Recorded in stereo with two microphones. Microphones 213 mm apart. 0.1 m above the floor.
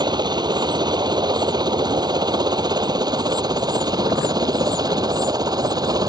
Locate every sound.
0.0 s a helicopter: 20° right (ahead or behind)